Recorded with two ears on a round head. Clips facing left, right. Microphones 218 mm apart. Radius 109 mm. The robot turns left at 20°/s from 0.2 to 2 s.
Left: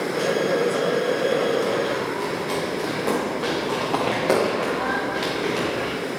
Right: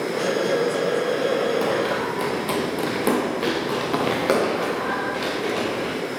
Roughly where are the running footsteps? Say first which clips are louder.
Even; right.